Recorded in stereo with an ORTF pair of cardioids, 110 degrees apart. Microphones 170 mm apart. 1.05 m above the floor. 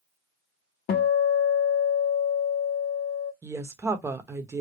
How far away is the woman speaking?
About 0.9 m.